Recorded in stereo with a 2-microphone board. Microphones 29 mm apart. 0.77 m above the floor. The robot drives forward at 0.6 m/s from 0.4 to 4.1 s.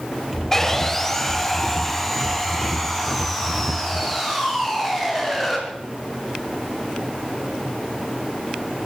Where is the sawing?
10° left (ahead or behind), 1.2 m; by 5.6 s 5° left (ahead or behind), 3.5 m.